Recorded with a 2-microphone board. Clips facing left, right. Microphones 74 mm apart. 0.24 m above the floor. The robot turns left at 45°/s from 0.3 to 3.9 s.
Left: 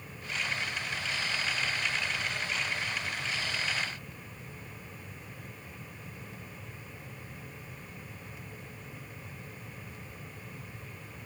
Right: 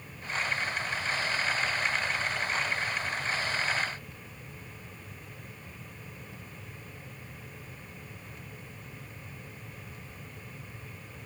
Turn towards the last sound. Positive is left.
No sound to turn to.